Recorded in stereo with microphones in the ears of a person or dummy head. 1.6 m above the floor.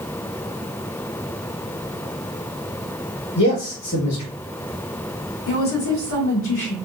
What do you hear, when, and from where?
3.4 s a man speaking: 50° left (ahead or behind), 2 m
5.5 s a woman speaking: 80° left, 1.9 m